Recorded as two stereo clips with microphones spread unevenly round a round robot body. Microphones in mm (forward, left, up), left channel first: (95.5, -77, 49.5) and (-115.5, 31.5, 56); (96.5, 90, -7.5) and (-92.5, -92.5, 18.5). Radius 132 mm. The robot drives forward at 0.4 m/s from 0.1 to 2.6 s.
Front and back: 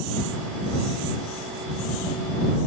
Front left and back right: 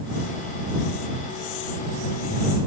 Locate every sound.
Only background noise.